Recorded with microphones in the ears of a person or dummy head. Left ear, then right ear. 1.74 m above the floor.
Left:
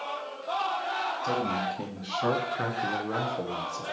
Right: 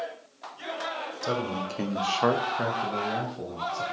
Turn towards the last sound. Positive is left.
turn(degrees=50)  # may be behind; listen again after turning